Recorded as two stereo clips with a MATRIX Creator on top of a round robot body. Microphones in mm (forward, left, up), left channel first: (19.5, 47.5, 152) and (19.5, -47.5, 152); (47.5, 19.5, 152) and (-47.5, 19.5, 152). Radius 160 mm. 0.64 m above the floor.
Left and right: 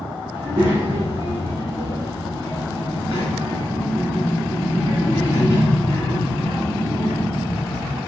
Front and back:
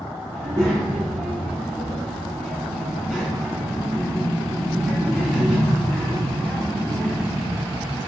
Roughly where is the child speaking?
Behind right.